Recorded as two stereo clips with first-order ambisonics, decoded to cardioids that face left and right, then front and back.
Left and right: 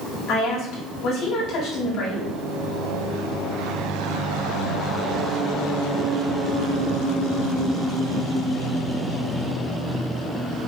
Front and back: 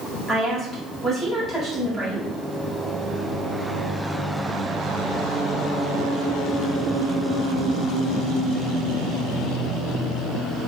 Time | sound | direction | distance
0.3 | a woman speaking | 100° left | 1.6 m